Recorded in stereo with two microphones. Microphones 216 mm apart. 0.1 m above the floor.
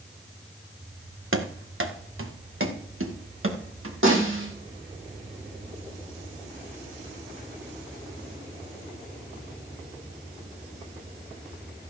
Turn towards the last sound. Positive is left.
turn(degrees=-70)  # may be behind; listen again after turning